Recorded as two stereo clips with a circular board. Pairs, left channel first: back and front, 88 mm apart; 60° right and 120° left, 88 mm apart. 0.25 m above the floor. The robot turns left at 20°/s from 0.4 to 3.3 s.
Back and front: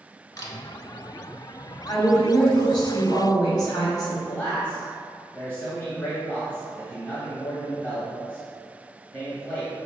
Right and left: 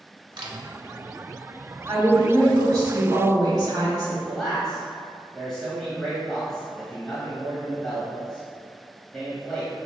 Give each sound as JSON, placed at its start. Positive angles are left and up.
{"t": 0.4, "sound": "a camera shutter", "azimuth_deg": 135, "distance_m": 0.8}
{"t": 1.9, "sound": "a woman speaking", "azimuth_deg": 175, "distance_m": 1.5}
{"t": 4.3, "sound": "a man speaking", "azimuth_deg": -135, "distance_m": 1.2}